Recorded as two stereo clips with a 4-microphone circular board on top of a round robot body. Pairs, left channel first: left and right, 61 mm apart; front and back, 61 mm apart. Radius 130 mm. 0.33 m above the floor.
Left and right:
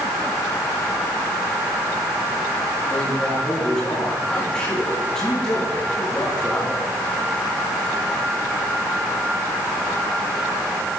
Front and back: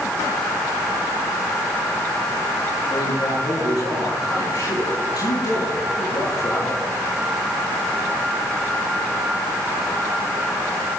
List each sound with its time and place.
2.9 s a man speaking: 10° left, 8 m